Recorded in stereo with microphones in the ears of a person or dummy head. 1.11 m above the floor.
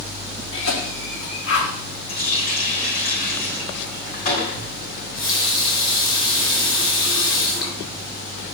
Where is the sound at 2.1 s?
45° left (ahead or behind), 3.5 m.